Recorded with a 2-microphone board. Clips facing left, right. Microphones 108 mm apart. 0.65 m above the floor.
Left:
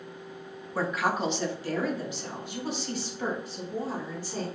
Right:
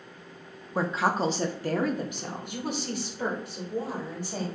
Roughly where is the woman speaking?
Centre.